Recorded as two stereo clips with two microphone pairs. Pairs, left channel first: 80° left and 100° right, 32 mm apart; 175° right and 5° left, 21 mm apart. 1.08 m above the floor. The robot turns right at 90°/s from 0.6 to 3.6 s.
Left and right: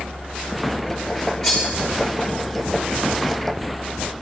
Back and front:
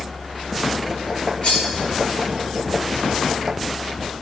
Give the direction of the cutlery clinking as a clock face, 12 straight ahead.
6 o'clock.